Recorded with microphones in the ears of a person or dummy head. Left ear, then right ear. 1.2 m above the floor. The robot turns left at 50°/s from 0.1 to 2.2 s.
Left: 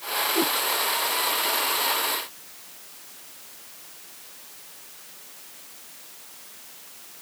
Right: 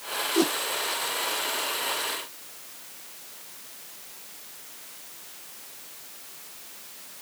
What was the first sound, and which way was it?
A whoosh, 45° right (ahead or behind).